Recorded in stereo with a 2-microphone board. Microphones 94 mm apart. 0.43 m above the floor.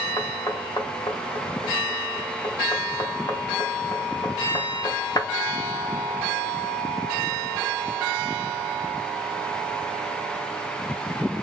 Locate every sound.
0.2 s knocking: 45° left (ahead or behind), 0.8 m